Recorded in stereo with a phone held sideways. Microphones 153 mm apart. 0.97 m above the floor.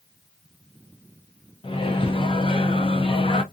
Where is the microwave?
35° left (ahead or behind), 0.6 m.